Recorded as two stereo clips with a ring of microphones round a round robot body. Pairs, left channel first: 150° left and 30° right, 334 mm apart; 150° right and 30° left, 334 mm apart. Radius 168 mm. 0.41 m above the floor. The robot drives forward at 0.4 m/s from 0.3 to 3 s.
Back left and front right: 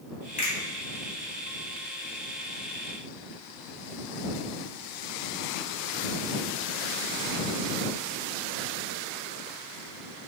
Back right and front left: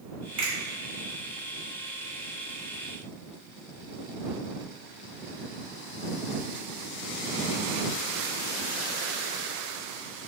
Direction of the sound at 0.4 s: 95° left.